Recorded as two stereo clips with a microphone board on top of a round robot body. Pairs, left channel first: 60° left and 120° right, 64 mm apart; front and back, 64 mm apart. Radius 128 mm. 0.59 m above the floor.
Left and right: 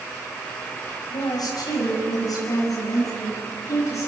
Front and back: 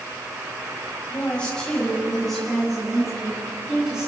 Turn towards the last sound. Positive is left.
turn(degrees=100)